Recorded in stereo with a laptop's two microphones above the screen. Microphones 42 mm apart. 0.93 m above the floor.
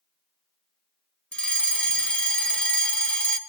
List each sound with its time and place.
1.3 s a fire alarm: 25° left (ahead or behind), 1.6 m